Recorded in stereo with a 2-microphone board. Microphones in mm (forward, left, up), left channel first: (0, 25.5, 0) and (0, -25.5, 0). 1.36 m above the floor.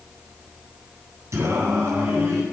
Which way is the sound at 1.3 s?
85° right.